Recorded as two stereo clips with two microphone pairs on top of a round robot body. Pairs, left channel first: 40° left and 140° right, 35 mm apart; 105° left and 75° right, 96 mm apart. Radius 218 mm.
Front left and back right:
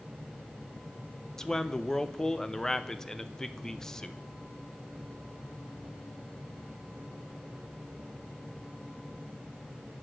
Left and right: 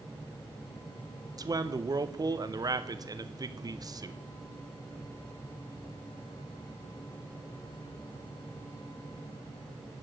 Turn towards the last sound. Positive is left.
turn(degrees=-35)